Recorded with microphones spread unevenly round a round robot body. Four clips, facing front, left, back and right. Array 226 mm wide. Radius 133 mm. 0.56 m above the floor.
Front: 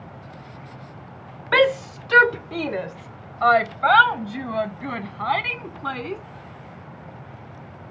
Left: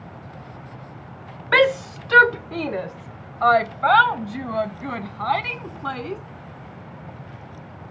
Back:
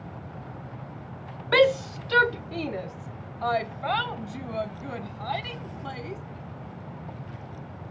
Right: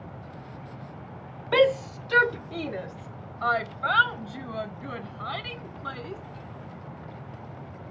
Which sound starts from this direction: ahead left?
A shout, at 1.5 s.